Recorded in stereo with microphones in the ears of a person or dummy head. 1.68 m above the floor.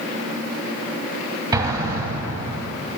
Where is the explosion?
25° right (ahead or behind), 1.9 m.